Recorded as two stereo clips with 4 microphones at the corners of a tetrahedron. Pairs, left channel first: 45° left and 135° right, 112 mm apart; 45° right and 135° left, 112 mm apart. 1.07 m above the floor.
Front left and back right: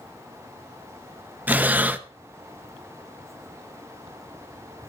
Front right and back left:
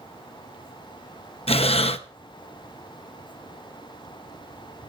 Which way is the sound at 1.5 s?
60° right.